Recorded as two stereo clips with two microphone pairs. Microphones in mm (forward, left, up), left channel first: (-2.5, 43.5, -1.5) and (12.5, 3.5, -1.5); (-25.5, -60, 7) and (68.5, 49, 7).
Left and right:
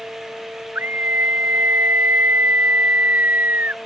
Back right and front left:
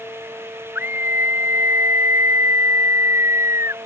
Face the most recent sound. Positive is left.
turn(degrees=-20)